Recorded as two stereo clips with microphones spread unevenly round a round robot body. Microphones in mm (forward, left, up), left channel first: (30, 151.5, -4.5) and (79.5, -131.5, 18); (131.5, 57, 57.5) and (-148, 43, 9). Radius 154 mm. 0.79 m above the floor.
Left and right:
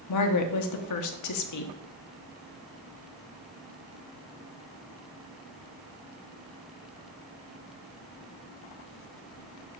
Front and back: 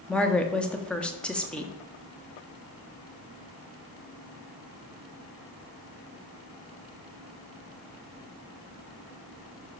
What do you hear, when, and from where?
0.1 s a woman speaking: 95° left, 1.1 m